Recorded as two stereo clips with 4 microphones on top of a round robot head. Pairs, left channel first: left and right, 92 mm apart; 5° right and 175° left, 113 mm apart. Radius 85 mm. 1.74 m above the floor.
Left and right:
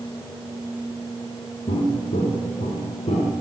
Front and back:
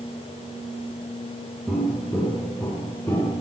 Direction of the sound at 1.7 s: 90° left.